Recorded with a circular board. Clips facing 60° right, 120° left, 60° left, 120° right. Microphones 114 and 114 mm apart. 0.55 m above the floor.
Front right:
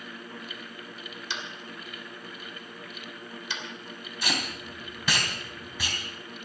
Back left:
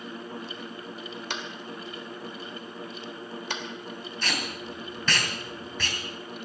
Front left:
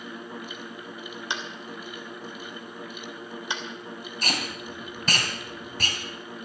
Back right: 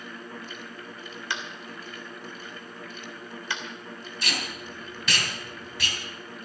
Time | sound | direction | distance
1.3 | tapping | 125° left | 2.5 m
4.2 | tape being pulled | 20° left | 3 m